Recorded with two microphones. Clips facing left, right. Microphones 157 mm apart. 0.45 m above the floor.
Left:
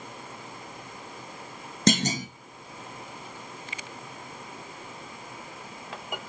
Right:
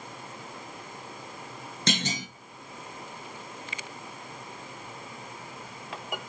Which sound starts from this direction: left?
A clunk, at 1.9 s.